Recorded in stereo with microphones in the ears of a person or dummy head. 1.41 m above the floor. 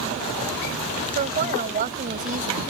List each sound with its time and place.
1.1 s a woman speaking: 45° right (ahead or behind)